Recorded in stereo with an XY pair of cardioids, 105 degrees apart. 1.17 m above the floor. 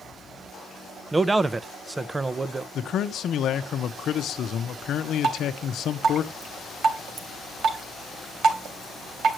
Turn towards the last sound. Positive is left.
turn(degrees=-65)